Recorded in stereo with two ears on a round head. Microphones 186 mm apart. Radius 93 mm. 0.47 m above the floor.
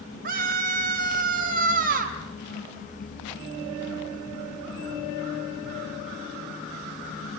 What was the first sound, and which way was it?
A scream, 55° right (ahead or behind).